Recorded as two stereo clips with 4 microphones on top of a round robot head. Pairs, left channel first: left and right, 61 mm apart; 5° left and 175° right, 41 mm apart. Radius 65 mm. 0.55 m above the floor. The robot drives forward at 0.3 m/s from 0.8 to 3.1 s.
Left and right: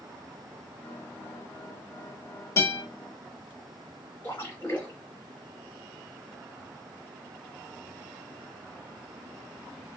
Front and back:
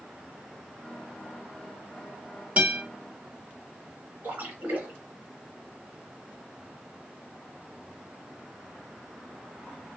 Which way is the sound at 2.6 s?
130° left.